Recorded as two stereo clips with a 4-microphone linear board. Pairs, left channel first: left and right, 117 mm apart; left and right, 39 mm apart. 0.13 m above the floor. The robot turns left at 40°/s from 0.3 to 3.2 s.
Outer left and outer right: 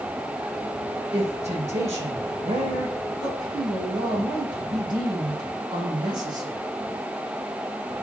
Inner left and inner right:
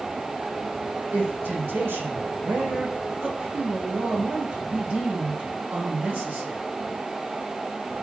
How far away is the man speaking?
About 7 m.